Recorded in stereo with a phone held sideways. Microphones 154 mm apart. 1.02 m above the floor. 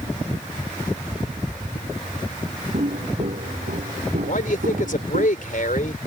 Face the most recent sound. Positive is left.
turn(degrees=65)  # may be behind; listen again after turning